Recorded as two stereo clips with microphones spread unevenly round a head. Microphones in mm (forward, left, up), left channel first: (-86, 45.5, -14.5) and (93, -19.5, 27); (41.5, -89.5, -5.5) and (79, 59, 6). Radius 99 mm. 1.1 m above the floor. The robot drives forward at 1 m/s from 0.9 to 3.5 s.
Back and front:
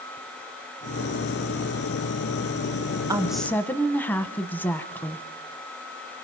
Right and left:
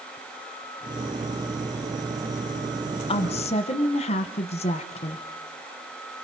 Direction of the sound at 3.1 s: 100° right.